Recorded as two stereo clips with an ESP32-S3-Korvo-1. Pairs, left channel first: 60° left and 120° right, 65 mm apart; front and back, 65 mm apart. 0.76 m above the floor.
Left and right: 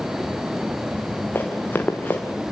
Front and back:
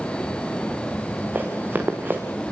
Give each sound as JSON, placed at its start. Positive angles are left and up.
{"t": 1.4, "sound": "running footsteps", "azimuth_deg": 120, "distance_m": 3.0}